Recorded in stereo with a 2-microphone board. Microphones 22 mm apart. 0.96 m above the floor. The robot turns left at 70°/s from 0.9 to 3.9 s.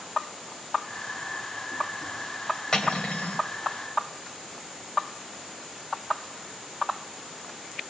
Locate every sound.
2.7 s cutlery clinking: 140° left, 2.5 m; by 3.4 s 95° left, 2.5 m